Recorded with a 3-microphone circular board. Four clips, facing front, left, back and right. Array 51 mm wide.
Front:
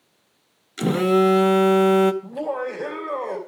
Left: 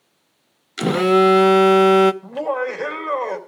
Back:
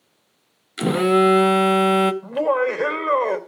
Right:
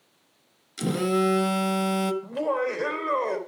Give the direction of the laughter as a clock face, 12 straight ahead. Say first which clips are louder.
Left 3 dB, back 7 dB; 6 o'clock.